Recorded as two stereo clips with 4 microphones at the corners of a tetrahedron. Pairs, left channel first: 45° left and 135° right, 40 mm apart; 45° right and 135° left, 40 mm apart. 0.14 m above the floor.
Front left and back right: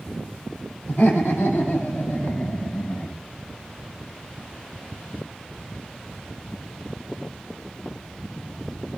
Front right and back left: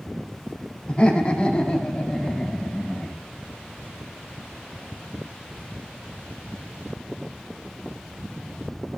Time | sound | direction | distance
0.9 | laughter | 20° left | 4.5 m